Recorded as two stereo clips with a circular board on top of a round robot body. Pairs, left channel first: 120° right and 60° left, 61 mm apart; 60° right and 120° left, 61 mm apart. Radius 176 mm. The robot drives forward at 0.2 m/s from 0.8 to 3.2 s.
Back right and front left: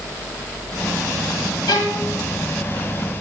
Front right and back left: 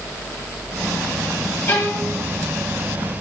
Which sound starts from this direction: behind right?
A violin, at 1.7 s.